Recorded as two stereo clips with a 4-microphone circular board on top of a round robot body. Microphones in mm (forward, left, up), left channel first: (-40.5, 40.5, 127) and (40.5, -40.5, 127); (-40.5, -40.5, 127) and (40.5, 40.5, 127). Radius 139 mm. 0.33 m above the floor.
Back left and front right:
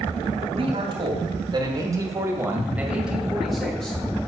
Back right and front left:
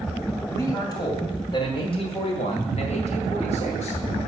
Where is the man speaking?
75° right, 2.5 m; by 4.0 s 145° right, 2.5 m.